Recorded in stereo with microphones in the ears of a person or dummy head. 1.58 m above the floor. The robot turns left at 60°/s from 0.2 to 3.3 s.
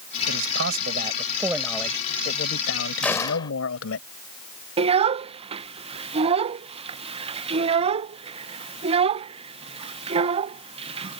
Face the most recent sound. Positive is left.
turn(degrees=-35)  # may be behind; listen again after turning